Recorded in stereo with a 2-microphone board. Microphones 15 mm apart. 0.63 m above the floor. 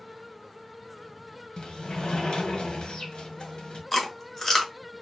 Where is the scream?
No scream in this recording.